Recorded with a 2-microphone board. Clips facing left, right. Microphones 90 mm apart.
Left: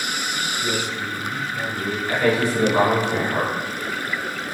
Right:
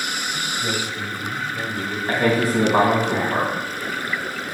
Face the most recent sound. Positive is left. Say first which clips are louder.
# right 1 dB
turn(degrees=-45)  # may be behind; listen again after turning